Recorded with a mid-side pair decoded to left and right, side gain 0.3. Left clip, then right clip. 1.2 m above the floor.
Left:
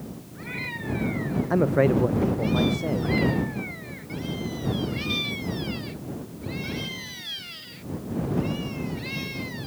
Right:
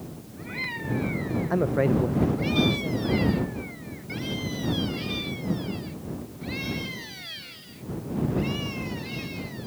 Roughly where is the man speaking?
Ahead.